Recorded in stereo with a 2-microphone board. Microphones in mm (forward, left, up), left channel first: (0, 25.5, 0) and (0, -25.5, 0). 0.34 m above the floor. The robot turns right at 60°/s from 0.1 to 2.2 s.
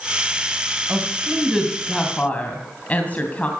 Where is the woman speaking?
35° right (ahead or behind), 2.5 m; by 3.5 s 30° left (ahead or behind), 2.5 m.